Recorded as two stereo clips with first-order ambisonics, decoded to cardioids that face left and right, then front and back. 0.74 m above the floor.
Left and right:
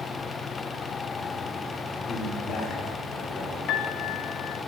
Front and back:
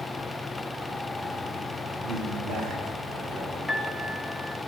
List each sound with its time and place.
2.0 s a man speaking: 145° left, 2.5 m; by 3.5 s 125° left, 3.5 m
3.7 s a piano: 85° left, 0.9 m